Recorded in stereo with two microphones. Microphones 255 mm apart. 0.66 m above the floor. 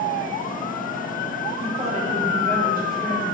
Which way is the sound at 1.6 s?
20° right (ahead or behind).